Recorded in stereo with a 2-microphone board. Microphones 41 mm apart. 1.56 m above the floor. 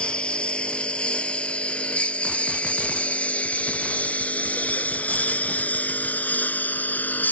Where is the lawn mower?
25° left (ahead or behind); by 7.3 s 45° left (ahead or behind).